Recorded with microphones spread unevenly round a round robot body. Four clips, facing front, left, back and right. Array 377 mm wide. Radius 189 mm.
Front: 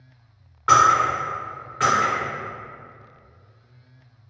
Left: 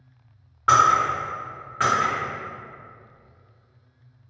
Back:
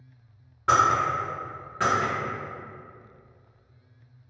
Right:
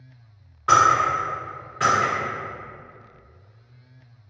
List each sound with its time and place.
0.7 s breaking glass: 145° left, 1.0 m